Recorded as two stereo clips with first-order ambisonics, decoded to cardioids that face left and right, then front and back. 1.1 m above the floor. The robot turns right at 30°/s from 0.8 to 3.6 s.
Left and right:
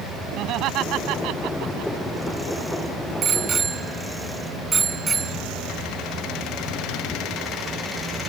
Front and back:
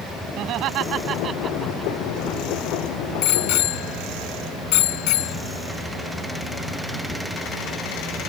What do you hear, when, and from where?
0.4 s laughter: 135° right; by 1.9 s 100° right
3.2 s a bicycle bell: 30° right; by 5.4 s 20° right